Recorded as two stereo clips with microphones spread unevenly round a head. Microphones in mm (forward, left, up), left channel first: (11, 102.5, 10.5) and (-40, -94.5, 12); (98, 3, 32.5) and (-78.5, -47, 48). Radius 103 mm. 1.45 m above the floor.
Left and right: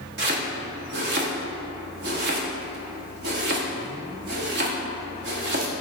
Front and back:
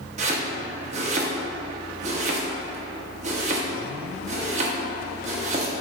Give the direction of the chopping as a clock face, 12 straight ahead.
4 o'clock.